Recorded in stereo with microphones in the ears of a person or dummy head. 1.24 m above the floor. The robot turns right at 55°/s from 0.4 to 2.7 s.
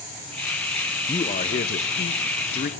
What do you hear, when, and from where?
1.1 s a man speaking: 30° left, 0.5 m; by 2.7 s 120° left, 0.5 m